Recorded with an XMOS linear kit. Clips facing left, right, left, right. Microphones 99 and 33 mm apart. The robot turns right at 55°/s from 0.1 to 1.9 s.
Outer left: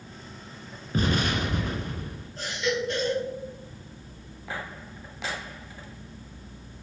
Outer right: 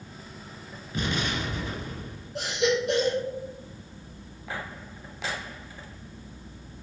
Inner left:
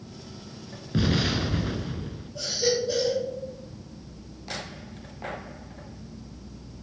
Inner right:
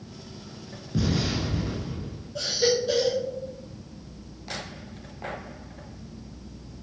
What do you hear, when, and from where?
0.9 s an explosion: 45° left, 1.4 m; by 2.3 s 100° left, 1.4 m
2.4 s a baby crying: 80° right, 3 m